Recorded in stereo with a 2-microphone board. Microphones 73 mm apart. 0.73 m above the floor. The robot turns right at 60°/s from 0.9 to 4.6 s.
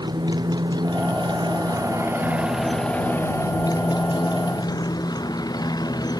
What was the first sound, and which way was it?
A motorcycle, 105° right.